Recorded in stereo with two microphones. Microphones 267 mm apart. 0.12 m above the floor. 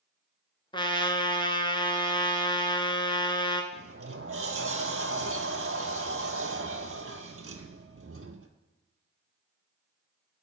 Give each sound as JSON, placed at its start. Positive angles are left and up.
{"t": 0.7, "sound": "a trumpet", "side_deg": 20, "distance_m": 0.6}
{"t": 3.7, "sound": "a sliding door", "side_deg": -55, "distance_m": 0.6}